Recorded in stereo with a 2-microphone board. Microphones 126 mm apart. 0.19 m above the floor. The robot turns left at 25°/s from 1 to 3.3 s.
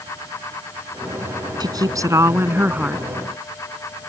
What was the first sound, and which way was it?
A woman speaking, 135° right.